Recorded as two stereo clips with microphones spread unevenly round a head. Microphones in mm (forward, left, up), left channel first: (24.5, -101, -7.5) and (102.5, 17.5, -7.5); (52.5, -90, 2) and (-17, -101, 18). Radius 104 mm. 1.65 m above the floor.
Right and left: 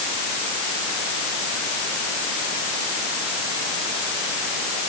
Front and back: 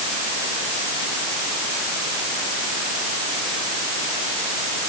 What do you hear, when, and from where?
Only background noise.